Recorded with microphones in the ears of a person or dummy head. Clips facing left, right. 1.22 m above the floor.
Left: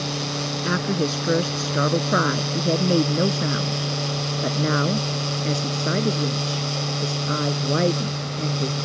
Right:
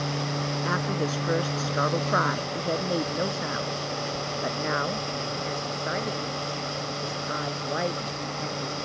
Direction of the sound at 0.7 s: 30° left (ahead or behind).